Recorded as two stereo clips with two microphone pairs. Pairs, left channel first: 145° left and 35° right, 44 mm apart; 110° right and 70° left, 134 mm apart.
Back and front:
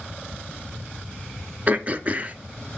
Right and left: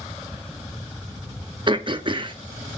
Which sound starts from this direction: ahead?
Throat clearing, at 1.7 s.